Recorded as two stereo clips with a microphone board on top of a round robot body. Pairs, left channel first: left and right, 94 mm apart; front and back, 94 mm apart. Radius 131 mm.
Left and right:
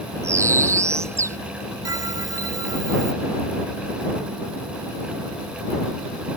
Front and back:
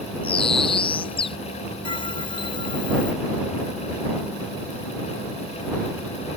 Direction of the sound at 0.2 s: 30° right.